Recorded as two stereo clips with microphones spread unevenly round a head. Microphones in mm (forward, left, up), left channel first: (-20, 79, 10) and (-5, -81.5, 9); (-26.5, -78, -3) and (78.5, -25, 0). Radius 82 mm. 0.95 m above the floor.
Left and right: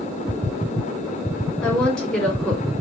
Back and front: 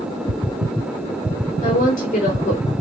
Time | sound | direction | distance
1.6 | a woman speaking | 175° left | 3 m